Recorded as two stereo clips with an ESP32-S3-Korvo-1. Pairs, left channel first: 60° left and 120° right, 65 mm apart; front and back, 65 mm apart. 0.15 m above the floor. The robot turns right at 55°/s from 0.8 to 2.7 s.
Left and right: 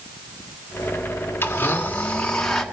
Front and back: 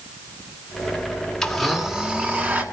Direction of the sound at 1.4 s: 75° left.